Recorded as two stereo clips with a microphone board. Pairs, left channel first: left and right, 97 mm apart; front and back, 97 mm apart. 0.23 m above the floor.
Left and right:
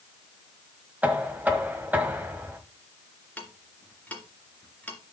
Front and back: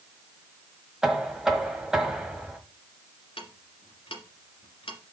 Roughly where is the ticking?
Ahead.